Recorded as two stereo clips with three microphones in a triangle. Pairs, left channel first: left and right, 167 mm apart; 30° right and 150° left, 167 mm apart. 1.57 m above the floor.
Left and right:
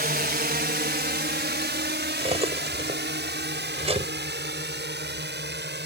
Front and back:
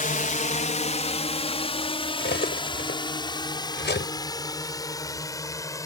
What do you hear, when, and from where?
0.0 s a drone: 65° right; by 5.9 s 100° right
2.2 s cutlery clinking: 35° right